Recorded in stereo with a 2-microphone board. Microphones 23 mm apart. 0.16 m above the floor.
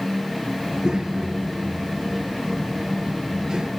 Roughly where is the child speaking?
Right.